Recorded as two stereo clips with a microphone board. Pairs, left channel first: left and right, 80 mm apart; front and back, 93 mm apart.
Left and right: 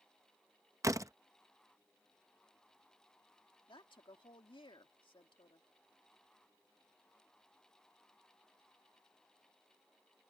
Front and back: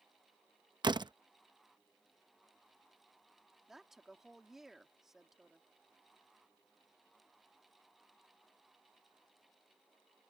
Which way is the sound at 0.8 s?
140° right.